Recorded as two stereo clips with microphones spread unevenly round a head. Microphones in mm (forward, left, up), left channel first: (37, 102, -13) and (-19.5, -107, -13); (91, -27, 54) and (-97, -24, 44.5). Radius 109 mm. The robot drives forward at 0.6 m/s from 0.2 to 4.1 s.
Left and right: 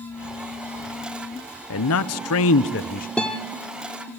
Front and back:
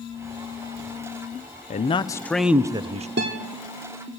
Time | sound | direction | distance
1.7 | a man speaking | 55° left | 0.7 m
3.2 | a guitar | 160° left | 1.2 m